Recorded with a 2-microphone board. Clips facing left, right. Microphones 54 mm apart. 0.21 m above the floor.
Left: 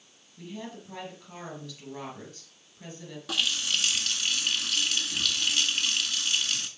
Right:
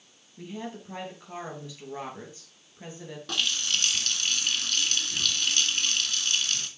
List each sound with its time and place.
0.4 s a woman speaking: 20° right (ahead or behind), 4 m
3.3 s a running tap: 5° left (ahead or behind), 1.4 m